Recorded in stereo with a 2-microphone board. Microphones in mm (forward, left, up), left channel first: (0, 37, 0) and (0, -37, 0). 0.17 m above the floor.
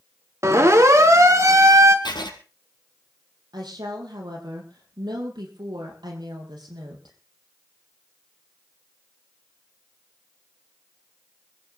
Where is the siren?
40° right (ahead or behind), 2.5 m; by 1.9 s 45° right (ahead or behind), 2 m.